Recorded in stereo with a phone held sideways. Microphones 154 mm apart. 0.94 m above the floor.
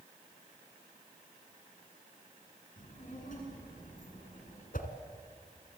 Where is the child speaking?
60° left (ahead or behind), 9 m; by 4.6 s 55° left (ahead or behind), 10.5 m.